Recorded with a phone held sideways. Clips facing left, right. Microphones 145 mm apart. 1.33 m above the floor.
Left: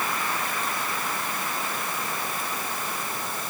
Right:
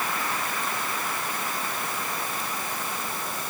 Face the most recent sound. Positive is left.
No sound to turn to.